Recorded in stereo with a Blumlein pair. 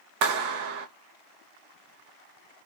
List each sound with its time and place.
0.2 s a clap: 40° right, 0.6 m